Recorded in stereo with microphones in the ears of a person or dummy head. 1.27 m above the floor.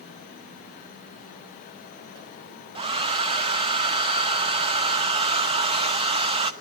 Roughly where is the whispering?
I don't hear whispering.